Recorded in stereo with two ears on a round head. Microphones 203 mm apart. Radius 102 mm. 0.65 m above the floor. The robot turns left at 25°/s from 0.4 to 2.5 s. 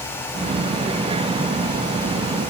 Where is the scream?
I don't hear a scream.